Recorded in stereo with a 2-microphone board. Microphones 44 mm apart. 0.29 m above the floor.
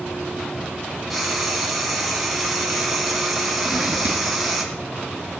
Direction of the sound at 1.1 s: Centre (ahead or behind).